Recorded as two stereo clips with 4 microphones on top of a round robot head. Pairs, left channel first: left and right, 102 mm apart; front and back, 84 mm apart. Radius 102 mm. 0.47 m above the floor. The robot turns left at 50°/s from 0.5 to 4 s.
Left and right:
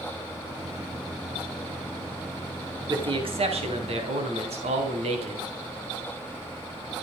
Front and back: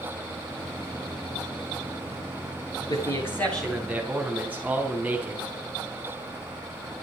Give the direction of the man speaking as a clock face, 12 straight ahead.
2 o'clock.